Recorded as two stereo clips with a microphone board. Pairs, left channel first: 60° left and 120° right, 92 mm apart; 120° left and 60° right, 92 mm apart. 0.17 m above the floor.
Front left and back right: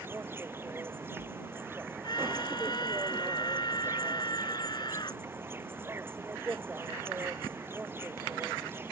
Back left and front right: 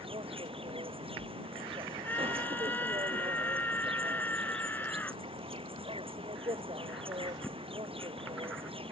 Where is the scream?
55° left.